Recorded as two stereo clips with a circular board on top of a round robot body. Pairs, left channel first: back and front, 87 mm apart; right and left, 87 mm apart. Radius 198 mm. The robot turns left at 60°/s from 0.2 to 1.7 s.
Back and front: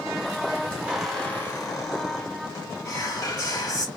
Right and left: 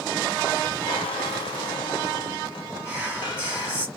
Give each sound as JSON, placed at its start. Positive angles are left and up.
{"t": 0.9, "sound": "a squeak", "azimuth_deg": -80, "distance_m": 0.7}
{"t": 2.9, "sound": "whispering", "azimuth_deg": 155, "distance_m": 1.7}